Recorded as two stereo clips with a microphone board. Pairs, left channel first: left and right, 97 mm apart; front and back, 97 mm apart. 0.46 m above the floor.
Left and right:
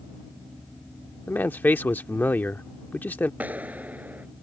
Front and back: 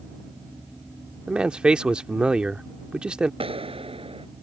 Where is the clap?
165° right.